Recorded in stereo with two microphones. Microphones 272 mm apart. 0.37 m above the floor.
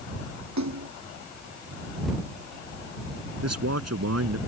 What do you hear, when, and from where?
0.6 s a splash: 85° right
3.4 s a man speaking: 65° right (ahead or behind)